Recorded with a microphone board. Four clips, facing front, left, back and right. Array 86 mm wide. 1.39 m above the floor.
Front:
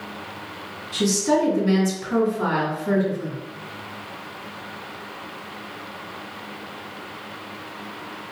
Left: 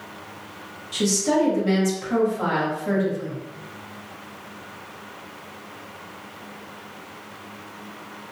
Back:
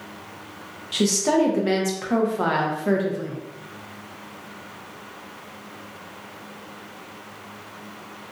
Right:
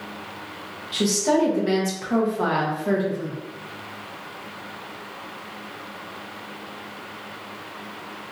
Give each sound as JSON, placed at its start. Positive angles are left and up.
{"t": 0.9, "sound": "a woman speaking", "azimuth_deg": -160, "distance_m": 1.0}